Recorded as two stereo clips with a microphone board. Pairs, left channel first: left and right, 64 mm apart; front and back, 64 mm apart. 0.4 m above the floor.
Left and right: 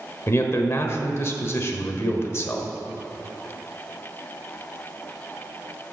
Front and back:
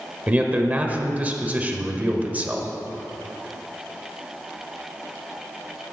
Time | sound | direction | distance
0.3 | a man speaking | 120° left | 1.1 m